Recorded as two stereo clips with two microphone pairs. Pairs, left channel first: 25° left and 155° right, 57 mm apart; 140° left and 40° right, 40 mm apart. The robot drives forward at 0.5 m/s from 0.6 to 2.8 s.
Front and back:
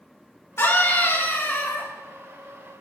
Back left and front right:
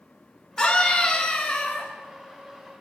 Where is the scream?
65° left, 4 m; by 1.9 s 75° left, 4 m.